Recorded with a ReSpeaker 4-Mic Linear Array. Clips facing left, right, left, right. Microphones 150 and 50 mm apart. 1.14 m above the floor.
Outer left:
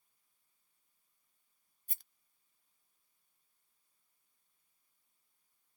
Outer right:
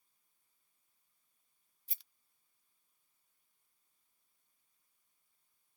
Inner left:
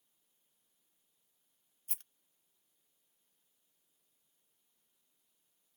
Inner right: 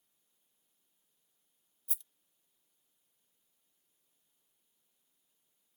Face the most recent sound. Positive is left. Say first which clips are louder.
# outer left 3 dB, inner left 3 dB
turn(degrees=55)  # may be behind; listen again after turning